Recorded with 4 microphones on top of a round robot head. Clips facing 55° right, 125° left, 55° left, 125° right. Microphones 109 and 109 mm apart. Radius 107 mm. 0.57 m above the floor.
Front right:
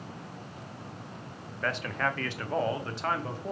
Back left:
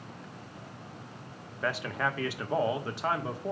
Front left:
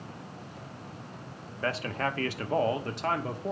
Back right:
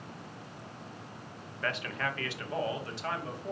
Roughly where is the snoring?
I don't hear snoring.